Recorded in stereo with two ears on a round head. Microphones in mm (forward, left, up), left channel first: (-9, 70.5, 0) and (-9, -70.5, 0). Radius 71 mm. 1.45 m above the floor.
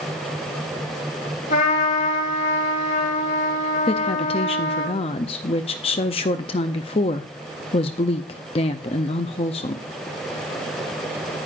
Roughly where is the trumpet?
Left.